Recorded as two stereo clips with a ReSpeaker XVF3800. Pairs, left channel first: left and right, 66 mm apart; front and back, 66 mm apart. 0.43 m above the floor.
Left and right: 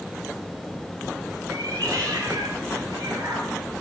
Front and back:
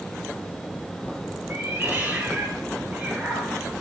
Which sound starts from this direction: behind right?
A cat meowing, at 1.5 s.